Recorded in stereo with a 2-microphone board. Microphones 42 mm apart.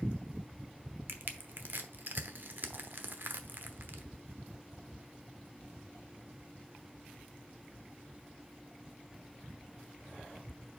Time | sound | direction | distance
1.1 | crushing | 50° right (ahead or behind) | 0.9 m